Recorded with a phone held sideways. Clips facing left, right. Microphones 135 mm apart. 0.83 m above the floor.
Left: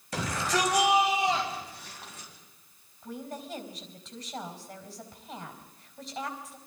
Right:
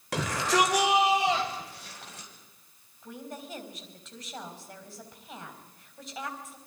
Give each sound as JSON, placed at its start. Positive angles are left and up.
{"t": 0.1, "sound": "a shout", "side_deg": -75, "distance_m": 3.5}
{"t": 3.0, "sound": "a woman speaking", "side_deg": 0, "distance_m": 4.0}